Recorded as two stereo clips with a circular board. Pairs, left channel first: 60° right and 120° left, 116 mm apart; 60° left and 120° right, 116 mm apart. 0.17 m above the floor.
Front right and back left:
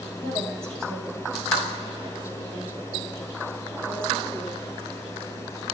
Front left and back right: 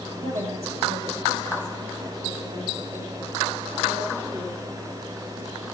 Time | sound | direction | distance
0.2 | a woman speaking | 135° right | 5 m